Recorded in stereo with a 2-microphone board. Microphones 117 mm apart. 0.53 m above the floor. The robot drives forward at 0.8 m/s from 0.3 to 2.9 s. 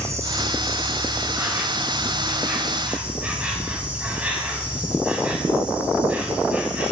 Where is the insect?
25° right (ahead or behind), 2.0 m; by 6.9 s 15° right (ahead or behind), 4 m.